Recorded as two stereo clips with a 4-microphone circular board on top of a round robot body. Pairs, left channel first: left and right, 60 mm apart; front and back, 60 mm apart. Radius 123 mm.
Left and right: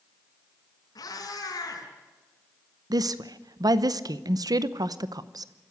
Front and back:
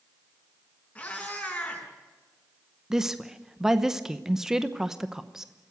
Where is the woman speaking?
95° right, 0.9 m.